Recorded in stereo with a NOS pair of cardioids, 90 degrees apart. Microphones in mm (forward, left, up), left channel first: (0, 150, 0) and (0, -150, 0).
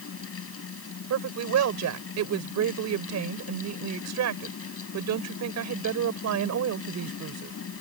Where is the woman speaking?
60° right.